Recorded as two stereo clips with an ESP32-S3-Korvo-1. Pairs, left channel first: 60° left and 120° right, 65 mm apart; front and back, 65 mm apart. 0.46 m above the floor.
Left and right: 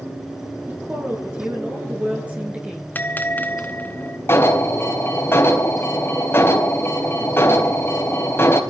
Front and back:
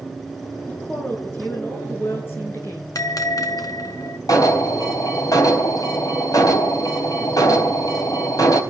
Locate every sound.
0.7 s a woman speaking: 60° right, 7.5 m; by 2.9 s 50° right, 8 m
3.0 s a bell: straight ahead, 1.9 m
4.3 s an alarm: 10° left, 4 m